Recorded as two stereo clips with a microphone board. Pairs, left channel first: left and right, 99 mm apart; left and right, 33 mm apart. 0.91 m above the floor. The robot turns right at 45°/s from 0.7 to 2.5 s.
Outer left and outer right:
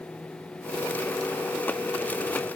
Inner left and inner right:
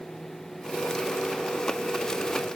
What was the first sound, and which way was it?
Only background noise.